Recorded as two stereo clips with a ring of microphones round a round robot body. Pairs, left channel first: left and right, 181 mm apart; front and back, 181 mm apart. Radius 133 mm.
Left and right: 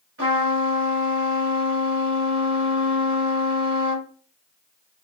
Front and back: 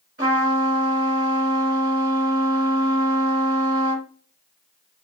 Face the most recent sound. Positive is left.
turn(degrees=-130)